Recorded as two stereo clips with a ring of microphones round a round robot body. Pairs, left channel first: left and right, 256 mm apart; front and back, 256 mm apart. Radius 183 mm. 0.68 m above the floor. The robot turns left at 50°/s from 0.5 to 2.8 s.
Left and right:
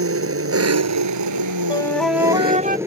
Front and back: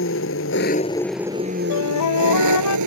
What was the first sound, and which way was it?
An engine running, 60° right.